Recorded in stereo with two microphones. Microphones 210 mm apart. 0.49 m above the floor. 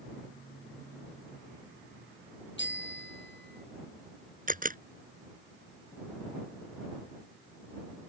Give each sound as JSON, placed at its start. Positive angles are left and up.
{"t": 2.6, "sound": "a bicycle bell", "side_deg": 60}
{"t": 4.5, "sound": "a camera shutter", "side_deg": -40}